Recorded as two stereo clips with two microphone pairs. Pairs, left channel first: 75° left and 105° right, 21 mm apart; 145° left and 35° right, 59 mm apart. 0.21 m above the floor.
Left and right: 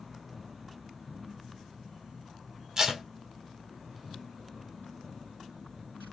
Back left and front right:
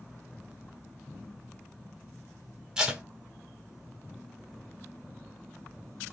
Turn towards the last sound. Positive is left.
turn(degrees=-90)